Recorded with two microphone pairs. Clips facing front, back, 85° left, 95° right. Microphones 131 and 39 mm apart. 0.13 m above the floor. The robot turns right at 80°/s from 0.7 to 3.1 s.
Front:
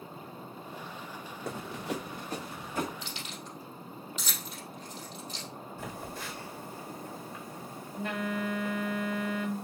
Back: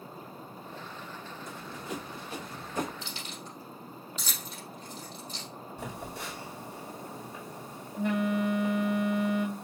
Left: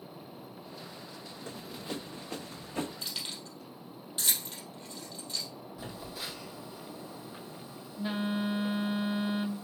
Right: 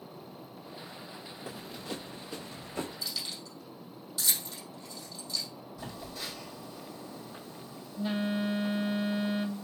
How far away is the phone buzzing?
About 1.8 m.